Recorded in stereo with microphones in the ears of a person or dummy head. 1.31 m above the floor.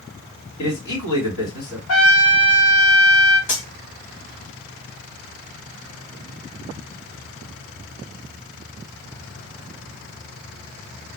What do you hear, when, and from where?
0.6 s a man speaking: 85° left, 1.9 m
1.9 s a trumpet: 75° left (ahead or behind), 1.3 m
3.5 s cutlery clinking: 40° left (ahead or behind), 1.7 m